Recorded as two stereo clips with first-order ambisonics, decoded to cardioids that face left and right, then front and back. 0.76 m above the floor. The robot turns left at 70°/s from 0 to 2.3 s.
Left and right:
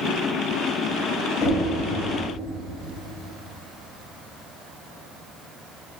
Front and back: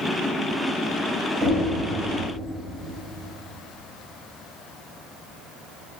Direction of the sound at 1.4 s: 140° left.